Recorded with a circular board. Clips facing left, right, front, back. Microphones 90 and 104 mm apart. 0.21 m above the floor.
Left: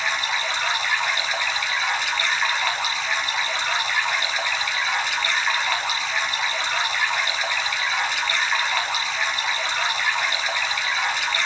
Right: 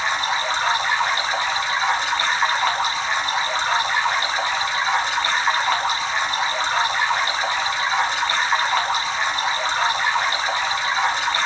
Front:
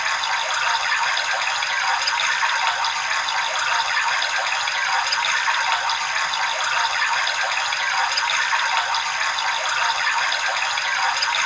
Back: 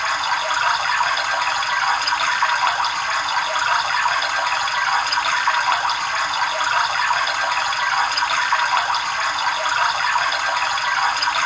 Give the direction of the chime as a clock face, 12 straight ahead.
No chime in this recording.